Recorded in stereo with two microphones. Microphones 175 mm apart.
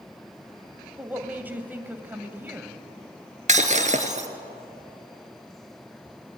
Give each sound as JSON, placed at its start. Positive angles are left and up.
{"t": 1.0, "sound": "a woman speaking", "side_deg": -10, "distance_m": 1.4}
{"t": 3.5, "sound": "breaking glass", "side_deg": -45, "distance_m": 1.3}